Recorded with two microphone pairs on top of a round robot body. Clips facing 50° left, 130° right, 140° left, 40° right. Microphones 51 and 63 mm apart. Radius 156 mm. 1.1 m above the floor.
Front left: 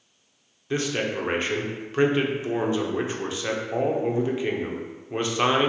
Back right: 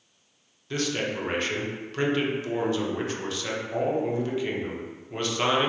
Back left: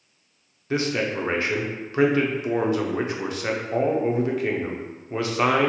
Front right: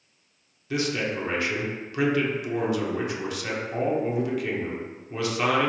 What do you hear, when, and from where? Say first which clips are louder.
0.7 s a man speaking: front left 2 dB, back left 3 dB; 105° left, 0.8 m